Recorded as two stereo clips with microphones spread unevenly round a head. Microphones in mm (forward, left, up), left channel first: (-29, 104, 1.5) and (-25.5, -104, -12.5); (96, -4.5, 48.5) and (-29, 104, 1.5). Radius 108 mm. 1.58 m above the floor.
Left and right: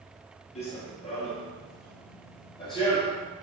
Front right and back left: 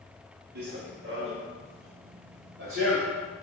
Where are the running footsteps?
130° left, 2 m; by 3.2 s 155° left, 3 m.